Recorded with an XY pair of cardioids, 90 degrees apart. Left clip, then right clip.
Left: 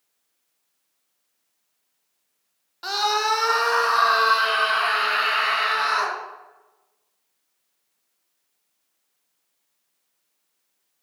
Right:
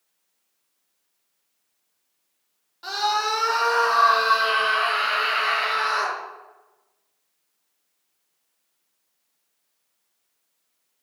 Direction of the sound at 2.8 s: 50° left.